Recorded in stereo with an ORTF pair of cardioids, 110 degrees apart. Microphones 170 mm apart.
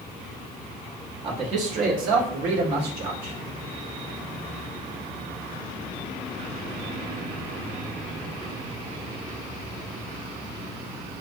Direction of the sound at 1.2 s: 35° right.